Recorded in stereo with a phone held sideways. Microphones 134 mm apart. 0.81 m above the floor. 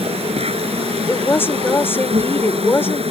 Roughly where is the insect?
Right.